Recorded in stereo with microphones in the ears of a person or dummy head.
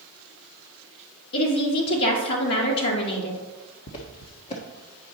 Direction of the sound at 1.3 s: 55° left (ahead or behind).